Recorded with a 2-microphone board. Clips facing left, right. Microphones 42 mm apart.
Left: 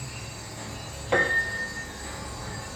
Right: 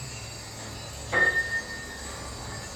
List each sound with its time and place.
0.0 s an insect: 30° left (ahead or behind), 1.0 m
1.1 s a piano: 60° left (ahead or behind), 0.6 m